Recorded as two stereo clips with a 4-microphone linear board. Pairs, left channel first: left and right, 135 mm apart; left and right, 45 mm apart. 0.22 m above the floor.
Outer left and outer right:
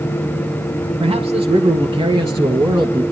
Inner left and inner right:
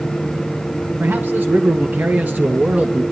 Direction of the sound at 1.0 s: 40° right (ahead or behind).